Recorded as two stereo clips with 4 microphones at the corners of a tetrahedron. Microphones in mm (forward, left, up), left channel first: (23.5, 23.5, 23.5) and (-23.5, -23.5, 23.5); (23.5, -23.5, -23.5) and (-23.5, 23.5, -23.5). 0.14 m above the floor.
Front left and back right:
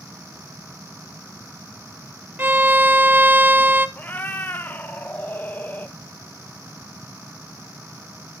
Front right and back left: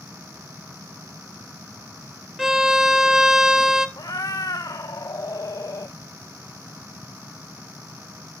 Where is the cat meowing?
20° right, 0.7 m.